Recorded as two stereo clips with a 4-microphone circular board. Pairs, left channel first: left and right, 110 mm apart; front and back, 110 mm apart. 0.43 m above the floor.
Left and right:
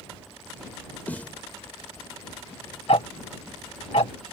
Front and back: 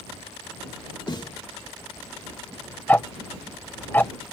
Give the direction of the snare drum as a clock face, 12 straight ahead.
11 o'clock.